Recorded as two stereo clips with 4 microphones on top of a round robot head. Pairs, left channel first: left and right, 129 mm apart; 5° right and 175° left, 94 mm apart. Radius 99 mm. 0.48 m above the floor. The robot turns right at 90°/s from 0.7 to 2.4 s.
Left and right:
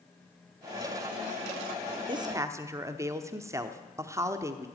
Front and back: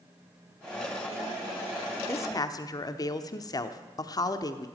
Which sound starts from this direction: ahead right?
A woman speaking, at 2.1 s.